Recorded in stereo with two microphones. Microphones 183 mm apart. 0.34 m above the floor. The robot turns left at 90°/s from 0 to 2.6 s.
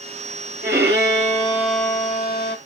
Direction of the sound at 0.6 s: 80° right.